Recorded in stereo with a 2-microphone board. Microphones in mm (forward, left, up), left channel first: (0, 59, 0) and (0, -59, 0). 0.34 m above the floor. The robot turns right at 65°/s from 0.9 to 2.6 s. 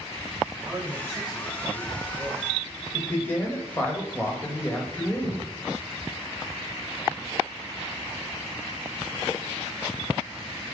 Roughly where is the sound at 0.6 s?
Behind right.